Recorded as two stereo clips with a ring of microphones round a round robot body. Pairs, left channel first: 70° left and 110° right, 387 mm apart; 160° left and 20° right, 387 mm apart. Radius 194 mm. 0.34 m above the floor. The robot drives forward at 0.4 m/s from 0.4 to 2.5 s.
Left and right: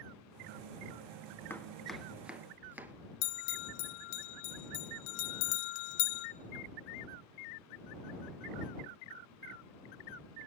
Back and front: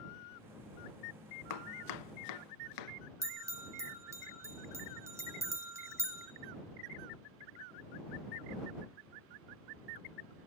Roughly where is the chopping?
Behind left.